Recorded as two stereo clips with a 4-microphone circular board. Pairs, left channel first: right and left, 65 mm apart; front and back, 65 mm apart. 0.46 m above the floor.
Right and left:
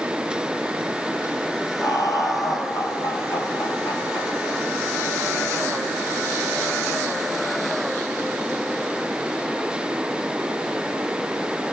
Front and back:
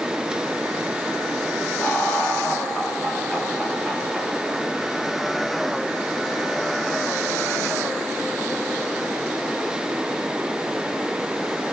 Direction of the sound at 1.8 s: 65° right.